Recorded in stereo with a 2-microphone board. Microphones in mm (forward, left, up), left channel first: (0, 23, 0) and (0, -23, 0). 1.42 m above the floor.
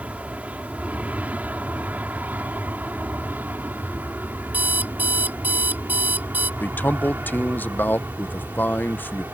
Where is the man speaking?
45° left (ahead or behind).